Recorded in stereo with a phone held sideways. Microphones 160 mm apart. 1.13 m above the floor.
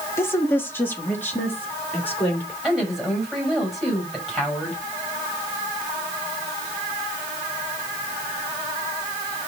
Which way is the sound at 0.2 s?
15° left (ahead or behind).